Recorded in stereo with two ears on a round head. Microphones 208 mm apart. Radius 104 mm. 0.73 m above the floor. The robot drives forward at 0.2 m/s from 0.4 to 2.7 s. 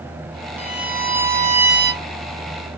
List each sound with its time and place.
0.6 s a violin: 10° right (ahead or behind), 0.9 m